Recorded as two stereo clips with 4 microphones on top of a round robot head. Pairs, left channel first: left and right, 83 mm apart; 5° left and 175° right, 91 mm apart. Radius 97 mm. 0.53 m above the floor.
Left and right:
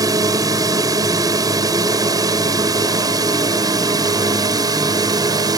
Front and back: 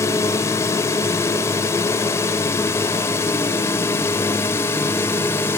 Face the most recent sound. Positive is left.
turn(degrees=-55)